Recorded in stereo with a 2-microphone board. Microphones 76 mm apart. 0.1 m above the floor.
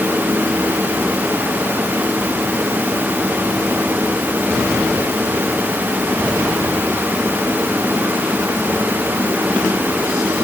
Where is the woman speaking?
No woman speaking in this recording.